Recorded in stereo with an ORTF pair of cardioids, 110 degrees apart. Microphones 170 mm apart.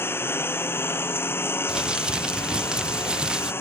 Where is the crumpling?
5° right.